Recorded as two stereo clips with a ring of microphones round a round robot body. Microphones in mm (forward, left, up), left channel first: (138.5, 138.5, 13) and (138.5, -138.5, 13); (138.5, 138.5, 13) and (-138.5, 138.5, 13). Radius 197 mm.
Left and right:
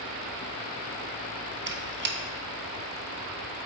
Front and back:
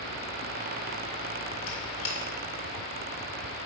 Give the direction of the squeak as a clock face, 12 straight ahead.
1 o'clock.